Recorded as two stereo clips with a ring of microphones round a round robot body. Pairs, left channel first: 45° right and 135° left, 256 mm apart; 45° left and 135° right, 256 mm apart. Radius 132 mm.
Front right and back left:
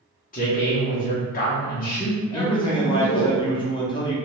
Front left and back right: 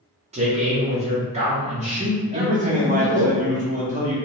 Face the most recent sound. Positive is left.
turn(degrees=-100)